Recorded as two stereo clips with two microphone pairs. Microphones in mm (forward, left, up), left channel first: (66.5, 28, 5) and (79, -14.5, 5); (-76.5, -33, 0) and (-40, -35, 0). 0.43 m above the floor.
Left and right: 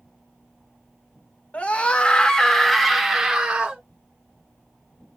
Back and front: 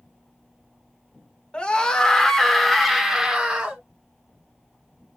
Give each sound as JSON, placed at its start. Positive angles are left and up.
{"t": 1.5, "sound": "a scream", "azimuth_deg": 140, "distance_m": 1.1}